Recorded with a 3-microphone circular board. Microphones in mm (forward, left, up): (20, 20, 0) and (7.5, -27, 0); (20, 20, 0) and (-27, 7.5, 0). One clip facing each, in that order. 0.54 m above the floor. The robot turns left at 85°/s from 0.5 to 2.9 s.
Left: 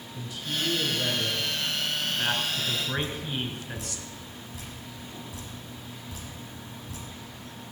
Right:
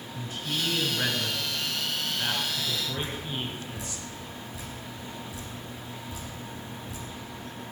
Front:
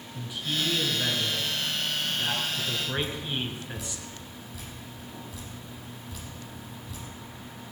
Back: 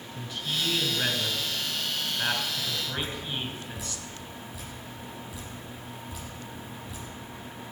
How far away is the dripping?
About 6.5 m.